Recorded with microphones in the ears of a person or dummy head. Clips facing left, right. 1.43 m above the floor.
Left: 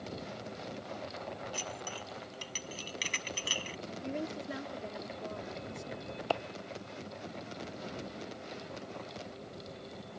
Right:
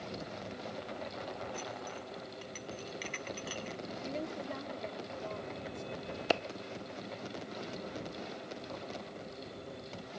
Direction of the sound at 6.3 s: 25° right (ahead or behind).